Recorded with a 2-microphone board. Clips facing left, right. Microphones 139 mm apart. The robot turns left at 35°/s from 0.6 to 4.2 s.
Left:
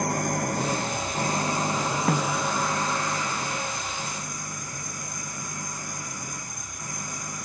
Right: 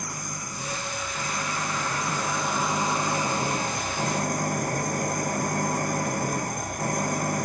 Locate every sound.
0.0 s an engine running: 65° left; by 7.5 s 60° right
2.1 s a snare drum: 70° left (ahead or behind); by 2.5 s 85° left